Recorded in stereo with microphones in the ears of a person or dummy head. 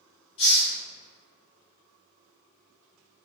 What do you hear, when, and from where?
0.4 s a hiss: 30° left (ahead or behind), 0.6 m